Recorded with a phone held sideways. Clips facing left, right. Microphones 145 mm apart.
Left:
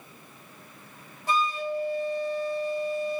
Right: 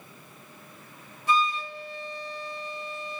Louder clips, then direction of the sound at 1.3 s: Even; 35° left (ahead or behind).